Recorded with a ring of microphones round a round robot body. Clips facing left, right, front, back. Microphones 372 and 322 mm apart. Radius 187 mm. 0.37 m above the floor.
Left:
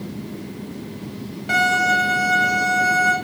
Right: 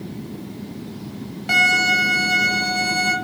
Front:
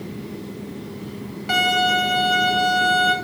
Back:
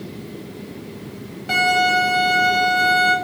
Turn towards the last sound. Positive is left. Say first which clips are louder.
# left 3 dB, back 2 dB
turn(degrees=-65)